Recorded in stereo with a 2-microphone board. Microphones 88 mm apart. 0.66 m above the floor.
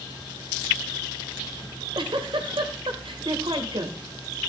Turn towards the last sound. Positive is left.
turn(degrees=-75)  # may be behind; listen again after turning